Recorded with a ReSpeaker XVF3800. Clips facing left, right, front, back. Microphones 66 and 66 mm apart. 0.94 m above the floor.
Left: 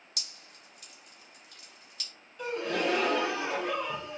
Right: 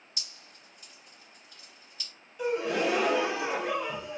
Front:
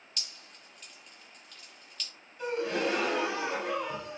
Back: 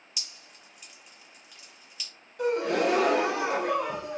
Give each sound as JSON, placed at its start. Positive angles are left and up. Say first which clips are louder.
{"t": 0.2, "sound": "dripping", "louder": "even, even", "azimuth_deg": 100, "distance_m": 0.8}
{"t": 2.4, "sound": "a gasp", "louder": "right 3 dB, back 5 dB", "azimuth_deg": -170, "distance_m": 0.6}